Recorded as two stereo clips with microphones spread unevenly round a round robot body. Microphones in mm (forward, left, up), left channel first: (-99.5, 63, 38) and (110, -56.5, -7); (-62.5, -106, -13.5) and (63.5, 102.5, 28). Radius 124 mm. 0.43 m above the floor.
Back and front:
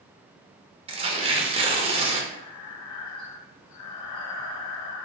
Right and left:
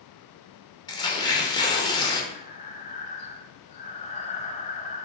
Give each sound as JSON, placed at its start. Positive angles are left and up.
{"t": 0.9, "sound": "tearing paper", "azimuth_deg": -70, "distance_m": 0.7}
{"t": 2.3, "sound": "breathing", "azimuth_deg": 175, "distance_m": 0.6}